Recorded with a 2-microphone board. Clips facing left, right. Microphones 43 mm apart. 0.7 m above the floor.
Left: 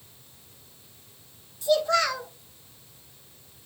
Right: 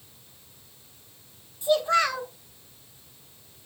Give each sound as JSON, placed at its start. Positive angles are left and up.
{"t": 1.6, "sound": "a child speaking", "side_deg": -20, "distance_m": 1.1}